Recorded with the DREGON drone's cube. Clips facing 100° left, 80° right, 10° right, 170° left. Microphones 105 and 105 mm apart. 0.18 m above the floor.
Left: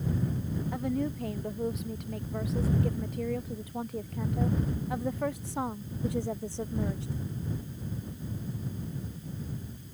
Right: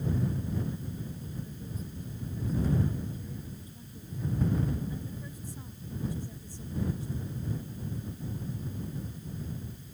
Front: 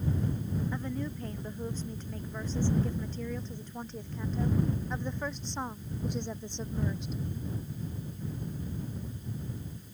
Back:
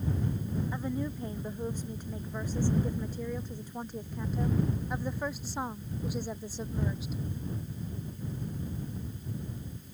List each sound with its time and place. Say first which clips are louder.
0.7 s a woman speaking: left 10 dB, back 1 dB; 95° left; by 7.2 s 85° left